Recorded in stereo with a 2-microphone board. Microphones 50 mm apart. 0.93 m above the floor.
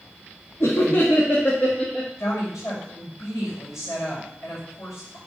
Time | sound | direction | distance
0.6 | laughter | 60° left (ahead or behind) | 1.6 m
2.2 | a woman speaking | 75° left (ahead or behind) | 5 m